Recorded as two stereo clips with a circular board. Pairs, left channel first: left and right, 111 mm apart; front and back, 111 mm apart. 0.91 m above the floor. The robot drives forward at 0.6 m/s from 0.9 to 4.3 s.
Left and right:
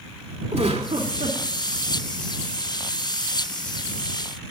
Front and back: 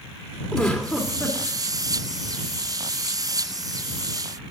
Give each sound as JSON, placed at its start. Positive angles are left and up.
{"t": 0.5, "sound": "a giggle", "azimuth_deg": -85, "distance_m": 3.0}